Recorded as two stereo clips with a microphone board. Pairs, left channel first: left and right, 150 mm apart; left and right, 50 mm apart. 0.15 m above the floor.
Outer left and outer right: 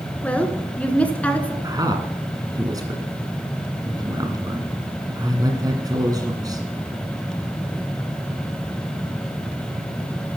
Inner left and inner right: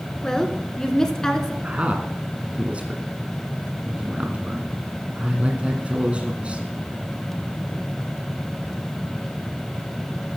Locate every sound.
0.2 s a woman speaking: 10° left (ahead or behind), 1.6 m
1.6 s a man speaking: 25° right (ahead or behind), 1.6 m